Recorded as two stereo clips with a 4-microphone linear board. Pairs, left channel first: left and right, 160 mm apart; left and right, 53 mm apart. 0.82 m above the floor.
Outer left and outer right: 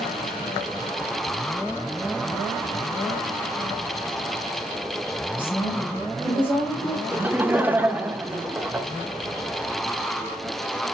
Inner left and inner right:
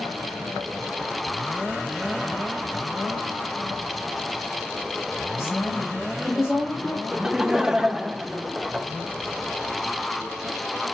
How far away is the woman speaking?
About 3.5 m.